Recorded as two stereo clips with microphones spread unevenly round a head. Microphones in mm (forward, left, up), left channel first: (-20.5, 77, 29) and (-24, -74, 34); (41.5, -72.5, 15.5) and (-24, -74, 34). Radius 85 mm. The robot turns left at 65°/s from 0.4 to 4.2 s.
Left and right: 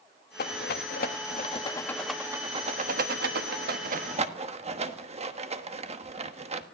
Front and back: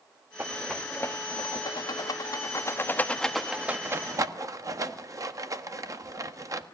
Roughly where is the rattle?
Left.